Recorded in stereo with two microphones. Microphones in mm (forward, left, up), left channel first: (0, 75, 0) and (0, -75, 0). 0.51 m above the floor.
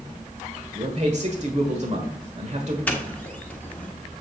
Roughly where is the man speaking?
Right.